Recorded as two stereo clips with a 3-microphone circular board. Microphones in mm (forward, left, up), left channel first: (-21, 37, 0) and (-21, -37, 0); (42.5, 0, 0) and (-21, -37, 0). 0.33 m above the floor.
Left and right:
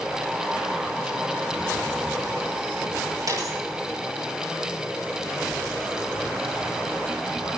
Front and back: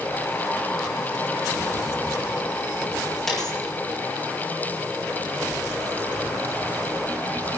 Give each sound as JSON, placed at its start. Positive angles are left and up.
{"t": 3.3, "sound": "a dropped coin", "azimuth_deg": -60, "distance_m": 7.0}